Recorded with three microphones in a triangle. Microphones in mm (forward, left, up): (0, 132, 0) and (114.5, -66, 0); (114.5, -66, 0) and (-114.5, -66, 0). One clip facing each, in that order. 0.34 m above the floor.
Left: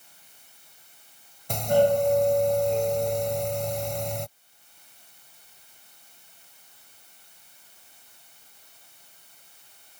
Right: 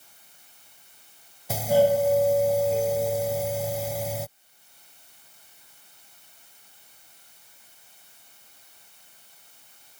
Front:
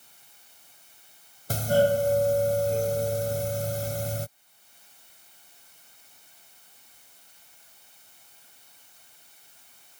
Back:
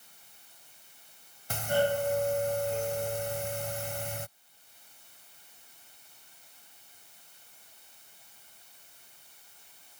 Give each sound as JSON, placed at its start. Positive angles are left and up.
{"t": 1.5, "sound": "a doorbell", "azimuth_deg": 25}